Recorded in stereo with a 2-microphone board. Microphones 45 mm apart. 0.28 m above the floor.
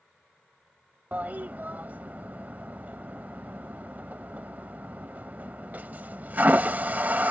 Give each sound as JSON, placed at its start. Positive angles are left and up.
{"t": 1.1, "sound": "a toilet flushing", "side_deg": -40}